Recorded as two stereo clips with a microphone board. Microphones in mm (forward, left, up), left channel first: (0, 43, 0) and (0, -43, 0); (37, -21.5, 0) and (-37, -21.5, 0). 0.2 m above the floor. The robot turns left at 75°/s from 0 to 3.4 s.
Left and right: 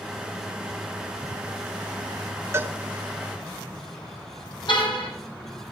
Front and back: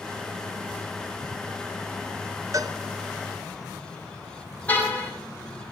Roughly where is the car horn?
Left.